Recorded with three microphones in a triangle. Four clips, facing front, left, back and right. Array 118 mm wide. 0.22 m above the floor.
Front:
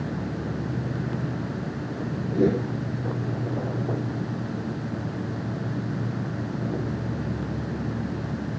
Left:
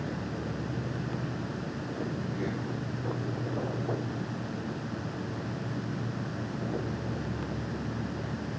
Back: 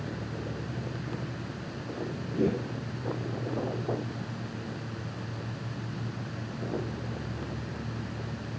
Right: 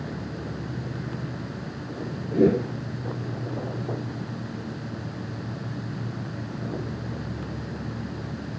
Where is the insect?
10° left.